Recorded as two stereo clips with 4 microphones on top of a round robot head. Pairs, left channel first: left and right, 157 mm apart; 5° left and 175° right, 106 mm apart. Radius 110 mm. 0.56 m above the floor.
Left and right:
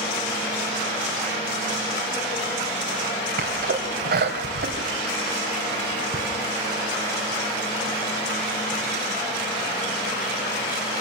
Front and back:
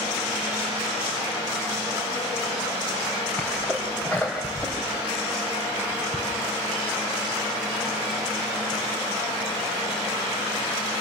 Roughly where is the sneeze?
Right.